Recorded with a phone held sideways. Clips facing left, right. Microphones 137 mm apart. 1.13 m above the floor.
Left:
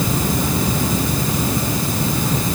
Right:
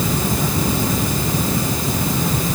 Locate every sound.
Only background noise.